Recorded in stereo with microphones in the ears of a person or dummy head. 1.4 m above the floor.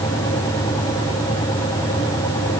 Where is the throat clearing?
No throat clearing in this recording.